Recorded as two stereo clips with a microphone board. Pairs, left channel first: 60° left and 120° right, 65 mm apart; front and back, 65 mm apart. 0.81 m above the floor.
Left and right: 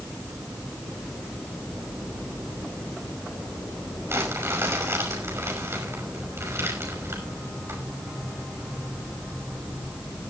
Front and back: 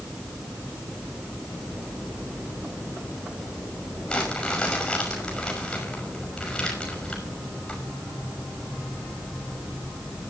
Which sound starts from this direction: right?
Crumpling, at 4.1 s.